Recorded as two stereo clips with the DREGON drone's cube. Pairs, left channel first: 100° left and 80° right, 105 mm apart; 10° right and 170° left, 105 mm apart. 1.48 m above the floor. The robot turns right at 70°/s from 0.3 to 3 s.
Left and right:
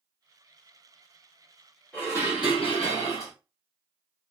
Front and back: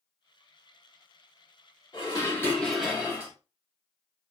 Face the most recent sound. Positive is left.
turn(degrees=95)